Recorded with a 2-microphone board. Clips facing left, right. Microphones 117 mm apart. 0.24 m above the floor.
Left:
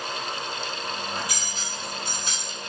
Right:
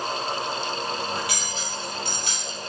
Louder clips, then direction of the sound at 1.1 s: Right 3 dB; 70° right (ahead or behind).